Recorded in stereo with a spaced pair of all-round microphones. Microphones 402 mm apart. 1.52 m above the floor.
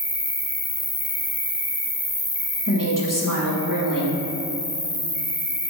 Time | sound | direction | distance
0.0 | an insect | 80° left | 0.9 m
2.7 | a woman speaking | 50° left (ahead or behind) | 1.8 m